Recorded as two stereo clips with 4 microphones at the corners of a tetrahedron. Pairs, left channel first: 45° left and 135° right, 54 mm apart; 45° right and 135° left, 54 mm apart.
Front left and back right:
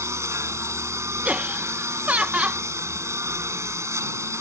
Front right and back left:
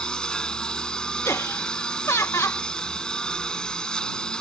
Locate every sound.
0.0 s a lawn mower: 120° right
1.2 s laughter: 70° right